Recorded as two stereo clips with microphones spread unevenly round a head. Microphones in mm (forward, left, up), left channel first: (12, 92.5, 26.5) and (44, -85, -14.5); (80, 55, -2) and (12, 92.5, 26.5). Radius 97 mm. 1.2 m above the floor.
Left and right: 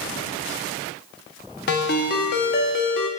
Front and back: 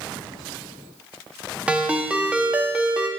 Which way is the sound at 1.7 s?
85° left.